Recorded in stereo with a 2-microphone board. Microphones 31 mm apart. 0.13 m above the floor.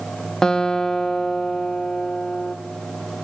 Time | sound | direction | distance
0.4 | a guitar | 15° left (ahead or behind) | 2 m